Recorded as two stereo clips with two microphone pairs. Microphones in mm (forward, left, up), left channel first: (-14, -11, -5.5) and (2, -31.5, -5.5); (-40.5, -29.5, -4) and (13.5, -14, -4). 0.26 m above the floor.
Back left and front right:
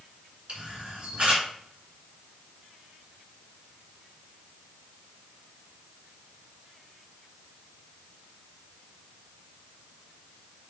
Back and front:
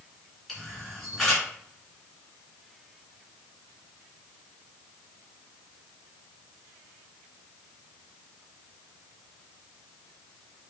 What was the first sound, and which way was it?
A camera shutter, 75° right.